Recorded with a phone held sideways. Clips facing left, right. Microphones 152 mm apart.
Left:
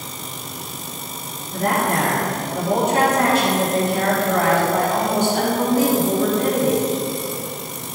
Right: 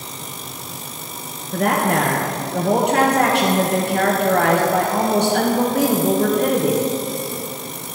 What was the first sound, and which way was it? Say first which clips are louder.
A woman speaking: right 2 dB; 70° right (ahead or behind).